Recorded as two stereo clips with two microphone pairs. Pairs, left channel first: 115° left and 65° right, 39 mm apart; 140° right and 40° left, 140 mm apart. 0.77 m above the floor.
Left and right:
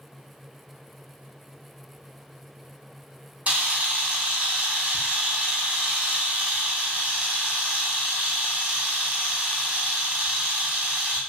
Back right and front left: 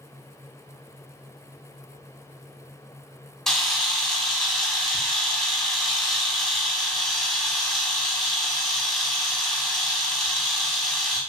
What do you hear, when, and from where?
3.5 s a camera shutter: 55° right, 0.7 m